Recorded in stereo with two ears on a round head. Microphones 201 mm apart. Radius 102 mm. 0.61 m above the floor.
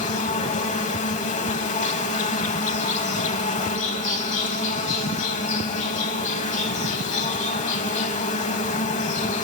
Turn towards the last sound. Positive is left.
turn(degrees=35)  # may be behind; listen again after turning